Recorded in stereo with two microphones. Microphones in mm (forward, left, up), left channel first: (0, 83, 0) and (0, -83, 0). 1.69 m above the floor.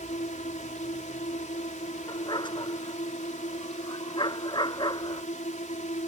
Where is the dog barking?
25° left (ahead or behind).